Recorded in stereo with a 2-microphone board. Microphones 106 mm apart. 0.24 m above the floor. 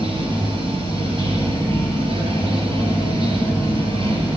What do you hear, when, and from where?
0.0 s running water: 65° right (ahead or behind), 3.5 m